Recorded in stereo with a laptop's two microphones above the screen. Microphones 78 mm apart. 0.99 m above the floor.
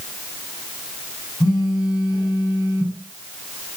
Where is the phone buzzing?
50° left (ahead or behind), 7.5 m.